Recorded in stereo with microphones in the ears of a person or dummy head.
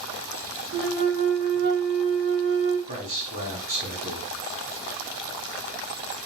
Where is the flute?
65° right (ahead or behind), 3 m.